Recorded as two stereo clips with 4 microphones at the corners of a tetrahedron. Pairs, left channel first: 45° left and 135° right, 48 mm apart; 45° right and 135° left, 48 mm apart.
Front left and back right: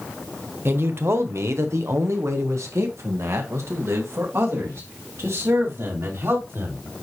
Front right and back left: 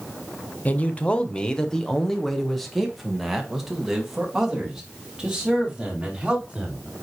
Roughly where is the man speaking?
Right.